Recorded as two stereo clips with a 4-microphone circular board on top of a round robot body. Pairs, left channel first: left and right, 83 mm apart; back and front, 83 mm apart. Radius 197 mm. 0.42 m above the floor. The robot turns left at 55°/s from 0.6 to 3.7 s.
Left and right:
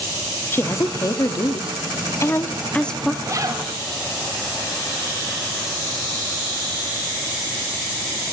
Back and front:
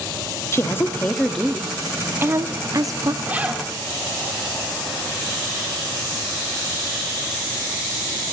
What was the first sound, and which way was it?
A woman speaking, 140° left.